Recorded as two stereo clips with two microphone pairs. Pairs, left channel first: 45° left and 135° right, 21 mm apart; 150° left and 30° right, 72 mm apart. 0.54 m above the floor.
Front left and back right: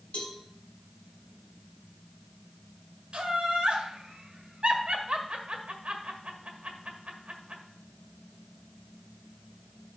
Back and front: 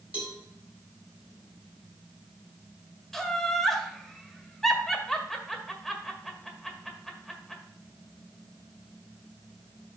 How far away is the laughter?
About 1.6 m.